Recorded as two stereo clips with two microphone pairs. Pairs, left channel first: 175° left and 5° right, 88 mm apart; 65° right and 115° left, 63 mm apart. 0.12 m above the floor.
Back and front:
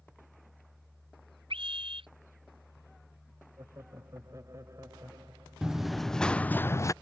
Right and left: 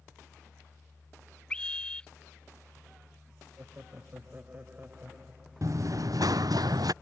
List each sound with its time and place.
1.5 s a scream: 10° left
3.6 s laughter: 50° left
5.6 s running footsteps: 80° left; by 6.9 s 125° left